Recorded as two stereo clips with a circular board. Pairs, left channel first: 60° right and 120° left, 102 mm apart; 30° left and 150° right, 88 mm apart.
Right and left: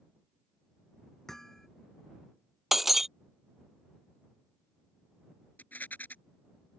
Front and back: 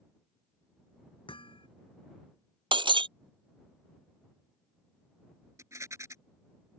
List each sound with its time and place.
1.3 s hammering: 25° left
2.7 s breaking glass: 155° right
5.6 s a rattle: 125° right